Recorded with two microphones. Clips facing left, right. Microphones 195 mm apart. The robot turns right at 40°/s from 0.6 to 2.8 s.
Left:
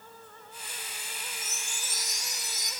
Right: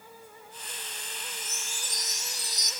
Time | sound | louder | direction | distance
1.4 | a chime | right 1 dB | 175° left | 2.5 m